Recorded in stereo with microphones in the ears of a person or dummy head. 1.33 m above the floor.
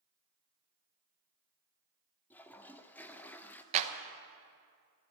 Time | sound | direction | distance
2.3 | a toilet flushing | 15° left (ahead or behind) | 0.8 m
3.7 | a clap | 30° right (ahead or behind) | 1.0 m